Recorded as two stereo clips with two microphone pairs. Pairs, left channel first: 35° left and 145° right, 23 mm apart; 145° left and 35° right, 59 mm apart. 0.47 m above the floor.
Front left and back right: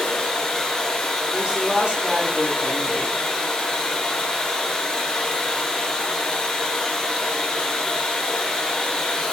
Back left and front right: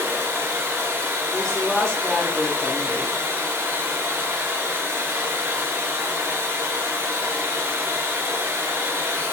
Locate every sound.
0.0 s running water: 5° right, 0.9 m
1.3 s a woman speaking: 135° right, 0.8 m